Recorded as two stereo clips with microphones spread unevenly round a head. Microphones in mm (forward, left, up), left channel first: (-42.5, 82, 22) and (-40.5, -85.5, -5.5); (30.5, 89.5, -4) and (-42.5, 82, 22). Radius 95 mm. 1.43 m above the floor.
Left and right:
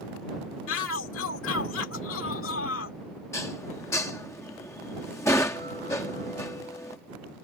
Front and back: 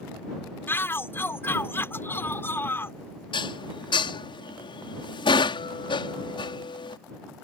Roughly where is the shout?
Left.